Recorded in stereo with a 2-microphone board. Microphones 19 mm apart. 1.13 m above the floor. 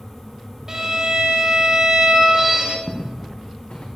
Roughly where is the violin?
Right.